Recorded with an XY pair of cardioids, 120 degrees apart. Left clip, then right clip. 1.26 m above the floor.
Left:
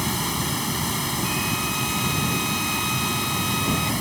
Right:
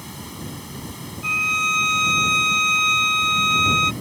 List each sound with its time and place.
0.0 s running water: 65° left
1.2 s a violin: 60° right